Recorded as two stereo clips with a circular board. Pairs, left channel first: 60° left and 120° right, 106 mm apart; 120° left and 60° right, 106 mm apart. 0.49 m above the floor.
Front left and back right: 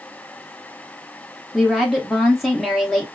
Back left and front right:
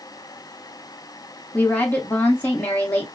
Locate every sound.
1.5 s a woman speaking: 155° left, 0.7 m